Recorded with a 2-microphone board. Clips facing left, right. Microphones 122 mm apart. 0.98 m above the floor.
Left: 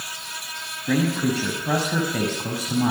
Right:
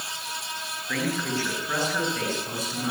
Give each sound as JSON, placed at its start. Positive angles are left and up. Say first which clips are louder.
{"t": 0.9, "sound": "a man speaking", "louder": "left 7 dB", "side_deg": 75, "distance_m": 5.5}